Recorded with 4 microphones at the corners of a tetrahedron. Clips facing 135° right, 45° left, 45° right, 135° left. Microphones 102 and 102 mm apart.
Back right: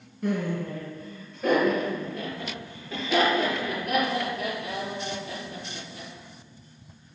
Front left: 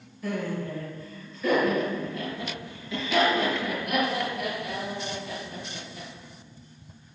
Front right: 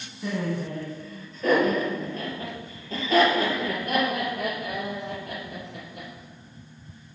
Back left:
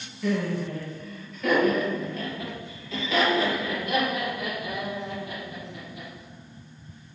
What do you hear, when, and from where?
0.2 s laughter: 110° right, 4 m; by 6.1 s 75° right, 5.5 m